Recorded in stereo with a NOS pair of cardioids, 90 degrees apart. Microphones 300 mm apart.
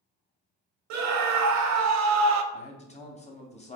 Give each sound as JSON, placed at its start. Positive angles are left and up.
{"t": 0.9, "sound": "a scream", "azimuth_deg": -70, "distance_m": 0.6}
{"t": 2.5, "sound": "a man speaking", "azimuth_deg": 20, "distance_m": 0.8}